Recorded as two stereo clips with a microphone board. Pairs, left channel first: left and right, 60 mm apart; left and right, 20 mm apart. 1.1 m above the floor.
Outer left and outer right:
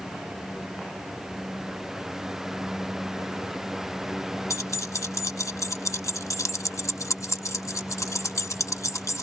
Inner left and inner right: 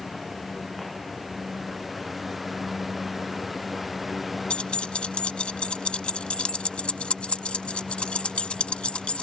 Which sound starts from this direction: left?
Keys jangling, at 4.5 s.